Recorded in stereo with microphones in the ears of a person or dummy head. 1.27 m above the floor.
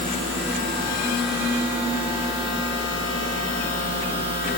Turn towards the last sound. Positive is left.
turn(degrees=85)